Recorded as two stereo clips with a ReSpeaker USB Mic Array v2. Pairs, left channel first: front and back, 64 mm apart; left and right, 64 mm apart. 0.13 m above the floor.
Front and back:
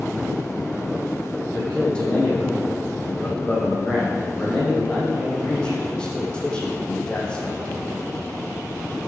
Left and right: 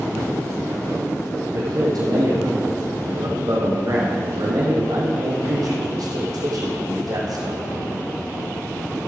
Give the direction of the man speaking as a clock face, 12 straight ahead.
2 o'clock.